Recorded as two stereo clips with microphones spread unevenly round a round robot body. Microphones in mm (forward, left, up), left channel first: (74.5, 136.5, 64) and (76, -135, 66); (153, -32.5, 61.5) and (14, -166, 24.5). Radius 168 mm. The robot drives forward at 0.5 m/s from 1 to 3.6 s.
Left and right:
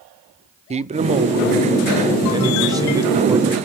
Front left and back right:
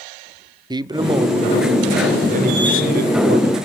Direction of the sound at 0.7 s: 135° right.